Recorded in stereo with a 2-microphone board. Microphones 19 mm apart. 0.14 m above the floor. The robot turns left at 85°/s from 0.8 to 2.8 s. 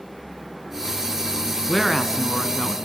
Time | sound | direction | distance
1.7 | a woman speaking | 40° left | 1.2 m